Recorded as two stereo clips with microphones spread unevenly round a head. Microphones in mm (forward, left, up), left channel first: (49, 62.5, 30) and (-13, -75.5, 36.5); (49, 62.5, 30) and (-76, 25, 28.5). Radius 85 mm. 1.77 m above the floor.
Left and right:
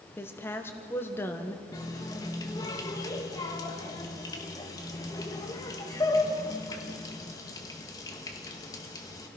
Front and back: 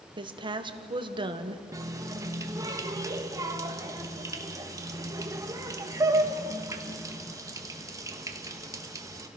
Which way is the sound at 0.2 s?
145° left.